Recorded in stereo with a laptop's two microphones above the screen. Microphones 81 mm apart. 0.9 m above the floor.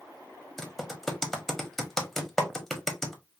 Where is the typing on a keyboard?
5° left (ahead or behind), 1.2 m.